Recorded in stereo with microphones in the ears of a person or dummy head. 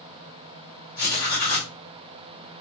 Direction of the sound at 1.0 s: 20° left (ahead or behind).